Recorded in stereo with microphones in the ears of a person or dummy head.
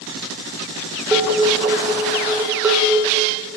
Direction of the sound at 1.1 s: 10° right (ahead or behind).